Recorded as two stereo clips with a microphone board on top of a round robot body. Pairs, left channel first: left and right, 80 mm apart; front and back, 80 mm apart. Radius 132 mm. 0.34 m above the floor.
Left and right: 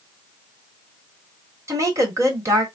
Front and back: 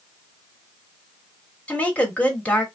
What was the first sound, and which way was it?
A woman speaking, 65° right.